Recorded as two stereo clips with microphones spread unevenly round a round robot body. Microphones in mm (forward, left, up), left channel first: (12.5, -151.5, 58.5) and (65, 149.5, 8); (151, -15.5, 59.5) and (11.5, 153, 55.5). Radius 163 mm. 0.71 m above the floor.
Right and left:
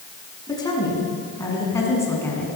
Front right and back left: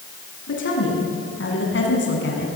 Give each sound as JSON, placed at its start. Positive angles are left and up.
{"t": 0.5, "sound": "a woman speaking", "azimuth_deg": -20, "distance_m": 8.0}